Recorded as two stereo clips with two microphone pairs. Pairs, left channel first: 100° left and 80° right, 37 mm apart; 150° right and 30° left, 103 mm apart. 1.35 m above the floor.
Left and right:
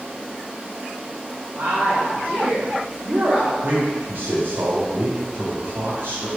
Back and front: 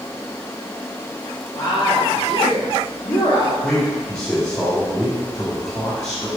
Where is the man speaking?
80° right, 2 m.